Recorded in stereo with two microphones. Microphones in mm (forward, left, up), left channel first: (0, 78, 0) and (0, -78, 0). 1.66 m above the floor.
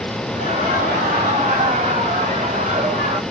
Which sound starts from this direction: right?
Laughter, at 0.3 s.